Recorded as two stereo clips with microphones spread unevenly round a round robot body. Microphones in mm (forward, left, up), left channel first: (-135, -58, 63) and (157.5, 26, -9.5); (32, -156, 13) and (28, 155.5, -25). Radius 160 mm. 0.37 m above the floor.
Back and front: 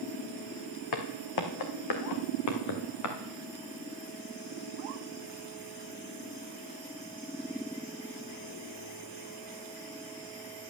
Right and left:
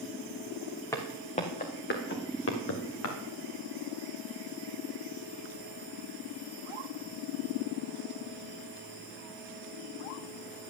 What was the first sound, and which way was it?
Footsteps, 170° right.